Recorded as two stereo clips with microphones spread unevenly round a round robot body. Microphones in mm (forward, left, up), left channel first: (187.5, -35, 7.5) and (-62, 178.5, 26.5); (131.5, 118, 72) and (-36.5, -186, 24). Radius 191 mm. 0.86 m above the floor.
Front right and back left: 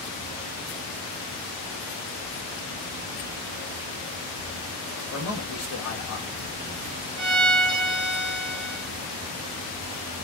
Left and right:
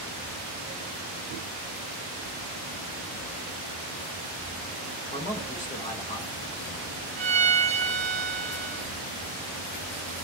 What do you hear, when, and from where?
5.1 s a man speaking: 10° right, 1.4 m
7.2 s a violin: 175° right, 0.5 m